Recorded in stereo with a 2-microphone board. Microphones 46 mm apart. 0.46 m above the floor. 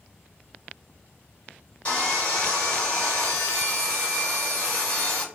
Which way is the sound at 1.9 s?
30° left (ahead or behind).